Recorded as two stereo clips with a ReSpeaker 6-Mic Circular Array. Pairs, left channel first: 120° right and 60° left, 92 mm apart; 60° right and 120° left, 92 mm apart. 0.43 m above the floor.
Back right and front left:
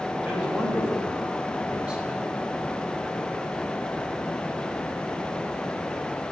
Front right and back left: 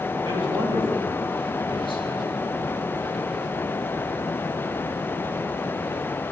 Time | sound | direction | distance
0.2 | a man speaking | 140° left | 3 m